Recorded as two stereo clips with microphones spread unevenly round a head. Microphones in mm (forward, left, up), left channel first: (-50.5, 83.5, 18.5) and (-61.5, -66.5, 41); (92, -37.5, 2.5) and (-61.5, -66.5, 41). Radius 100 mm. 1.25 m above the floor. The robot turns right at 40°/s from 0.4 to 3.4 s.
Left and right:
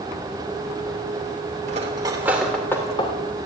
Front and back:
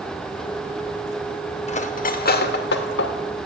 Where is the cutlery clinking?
35° right, 2.5 m; by 3.1 s 20° left, 2.5 m.